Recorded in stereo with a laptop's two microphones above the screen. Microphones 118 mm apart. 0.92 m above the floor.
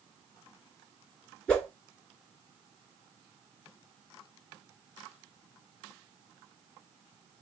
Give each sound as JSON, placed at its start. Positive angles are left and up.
{"t": 1.5, "sound": "a whoosh", "side_deg": 10, "distance_m": 2.0}